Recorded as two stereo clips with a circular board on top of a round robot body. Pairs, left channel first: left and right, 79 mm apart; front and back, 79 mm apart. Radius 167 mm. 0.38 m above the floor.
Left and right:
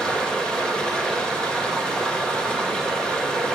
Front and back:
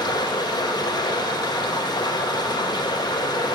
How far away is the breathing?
No breathing in this recording.